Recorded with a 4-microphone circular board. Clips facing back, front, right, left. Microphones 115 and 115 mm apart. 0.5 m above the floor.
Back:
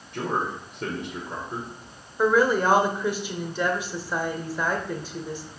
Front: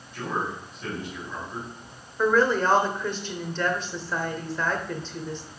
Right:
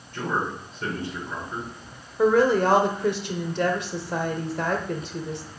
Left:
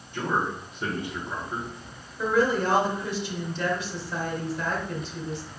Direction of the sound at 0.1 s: 165° left.